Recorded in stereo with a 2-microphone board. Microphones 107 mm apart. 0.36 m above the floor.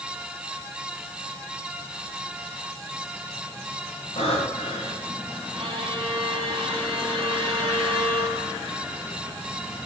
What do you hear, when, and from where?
4.2 s breathing: 75° left (ahead or behind), 7.5 m
5.5 s a violin: 55° right (ahead or behind), 3.5 m